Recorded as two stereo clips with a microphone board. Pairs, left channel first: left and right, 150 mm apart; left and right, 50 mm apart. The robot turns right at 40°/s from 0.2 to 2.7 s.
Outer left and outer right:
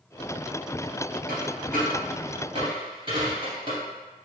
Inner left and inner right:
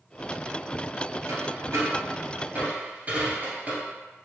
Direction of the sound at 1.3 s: 90° right.